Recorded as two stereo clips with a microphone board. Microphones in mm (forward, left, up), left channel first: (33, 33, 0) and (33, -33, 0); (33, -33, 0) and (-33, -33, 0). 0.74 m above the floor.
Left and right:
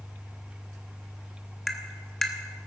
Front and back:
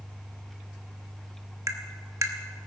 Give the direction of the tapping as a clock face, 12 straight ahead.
6 o'clock.